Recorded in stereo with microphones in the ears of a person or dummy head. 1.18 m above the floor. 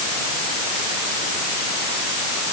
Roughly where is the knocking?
I don't hear knocking.